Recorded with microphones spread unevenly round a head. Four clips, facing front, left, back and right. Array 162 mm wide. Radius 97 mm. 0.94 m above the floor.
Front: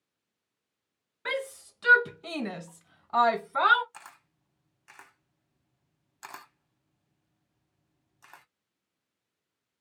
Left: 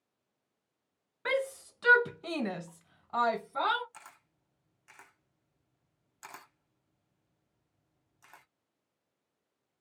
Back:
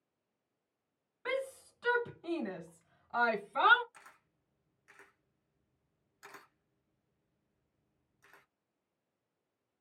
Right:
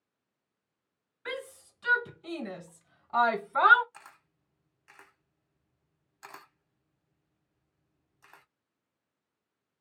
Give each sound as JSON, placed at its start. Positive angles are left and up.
{"t": 1.2, "sound": "a shout", "azimuth_deg": 65, "distance_m": 1.5}
{"t": 3.9, "sound": "a camera shutter", "azimuth_deg": -15, "distance_m": 1.3}